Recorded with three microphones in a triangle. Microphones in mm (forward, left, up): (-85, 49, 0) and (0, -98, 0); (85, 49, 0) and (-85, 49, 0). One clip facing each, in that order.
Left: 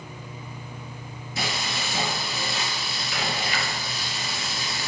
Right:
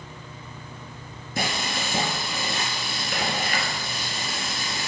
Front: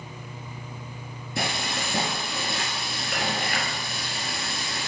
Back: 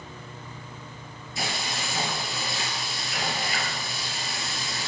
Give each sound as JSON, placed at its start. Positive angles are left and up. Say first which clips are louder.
{"t": 1.4, "sound": "frying", "louder": "right 3 dB, front 3 dB", "azimuth_deg": -25, "distance_m": 1.4}